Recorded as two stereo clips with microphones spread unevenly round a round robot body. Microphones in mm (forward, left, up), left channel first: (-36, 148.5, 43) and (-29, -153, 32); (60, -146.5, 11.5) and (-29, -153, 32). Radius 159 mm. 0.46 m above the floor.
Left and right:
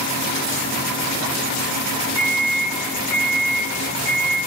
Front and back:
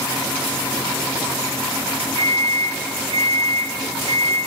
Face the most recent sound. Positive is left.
turn(degrees=150)